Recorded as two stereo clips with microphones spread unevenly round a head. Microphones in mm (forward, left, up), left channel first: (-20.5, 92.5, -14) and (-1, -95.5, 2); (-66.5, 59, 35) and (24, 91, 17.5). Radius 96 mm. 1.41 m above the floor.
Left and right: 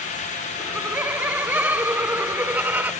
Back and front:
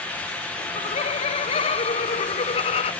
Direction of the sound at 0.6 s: 165° right.